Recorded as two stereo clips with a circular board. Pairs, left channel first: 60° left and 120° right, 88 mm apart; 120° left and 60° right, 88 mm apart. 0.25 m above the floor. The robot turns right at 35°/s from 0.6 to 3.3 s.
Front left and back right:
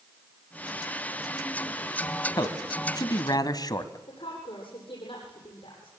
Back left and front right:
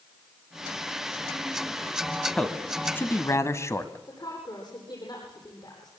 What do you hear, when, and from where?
2.4 s a man speaking: 40° left, 1.9 m; by 4.0 s 75° left, 1.9 m
4.1 s a woman speaking: 80° left, 10 m